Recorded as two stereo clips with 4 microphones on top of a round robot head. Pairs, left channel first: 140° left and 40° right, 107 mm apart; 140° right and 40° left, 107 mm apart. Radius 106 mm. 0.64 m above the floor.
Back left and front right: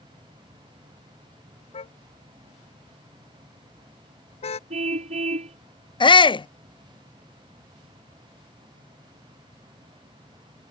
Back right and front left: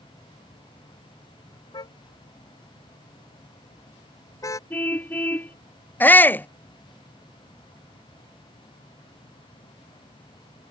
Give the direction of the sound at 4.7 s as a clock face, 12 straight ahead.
2 o'clock.